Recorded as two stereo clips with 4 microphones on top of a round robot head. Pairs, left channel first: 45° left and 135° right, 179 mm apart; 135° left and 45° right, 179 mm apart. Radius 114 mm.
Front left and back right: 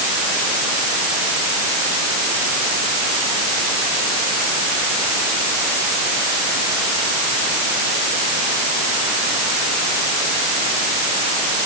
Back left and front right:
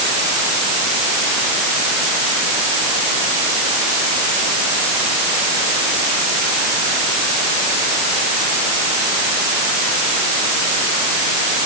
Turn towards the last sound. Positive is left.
No sound to turn to.